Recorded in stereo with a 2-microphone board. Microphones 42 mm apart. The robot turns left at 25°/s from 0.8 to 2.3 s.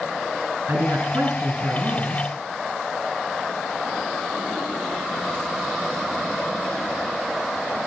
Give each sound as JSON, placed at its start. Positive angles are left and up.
{"t": 0.7, "sound": "a man speaking", "azimuth_deg": -70, "distance_m": 5.0}